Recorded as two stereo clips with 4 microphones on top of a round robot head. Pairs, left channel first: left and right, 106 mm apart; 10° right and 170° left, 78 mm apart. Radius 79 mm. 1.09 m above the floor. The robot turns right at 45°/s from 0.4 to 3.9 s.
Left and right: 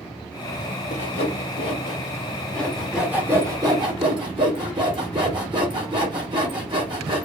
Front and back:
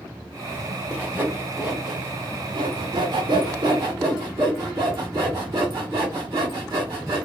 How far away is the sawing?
About 3 m.